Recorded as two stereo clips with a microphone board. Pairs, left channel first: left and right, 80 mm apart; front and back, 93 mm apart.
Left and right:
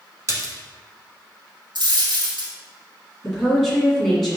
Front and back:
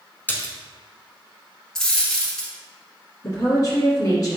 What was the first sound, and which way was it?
A splash, 60° right.